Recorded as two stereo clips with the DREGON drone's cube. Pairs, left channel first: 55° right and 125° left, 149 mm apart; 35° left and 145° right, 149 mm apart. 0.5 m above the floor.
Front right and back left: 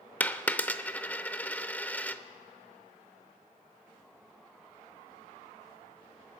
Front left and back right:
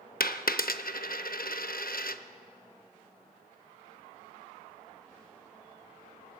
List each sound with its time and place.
0.2 s a dropped coin: 25° left, 0.5 m